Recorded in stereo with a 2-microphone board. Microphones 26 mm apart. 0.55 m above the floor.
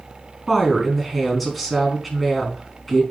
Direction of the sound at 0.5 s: 5° left (ahead or behind).